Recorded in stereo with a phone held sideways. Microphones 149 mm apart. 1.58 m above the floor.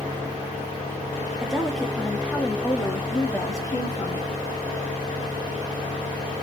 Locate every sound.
1.4 s a woman speaking: 5° right (ahead or behind), 2 m; by 4.3 s 30° left (ahead or behind), 3 m